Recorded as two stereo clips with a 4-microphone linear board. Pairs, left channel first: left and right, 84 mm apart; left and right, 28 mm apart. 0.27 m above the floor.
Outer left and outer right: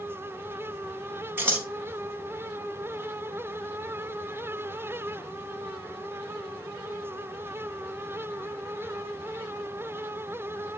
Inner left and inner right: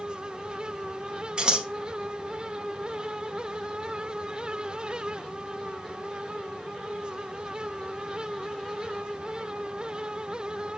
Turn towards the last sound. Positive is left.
turn(degrees=-25)  # may be behind; listen again after turning